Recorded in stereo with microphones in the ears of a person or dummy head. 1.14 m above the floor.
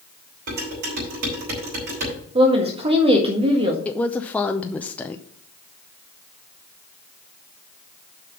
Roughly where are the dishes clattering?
Right.